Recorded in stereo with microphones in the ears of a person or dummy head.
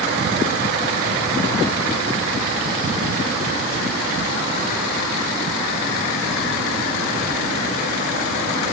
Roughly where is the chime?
No chime in this recording.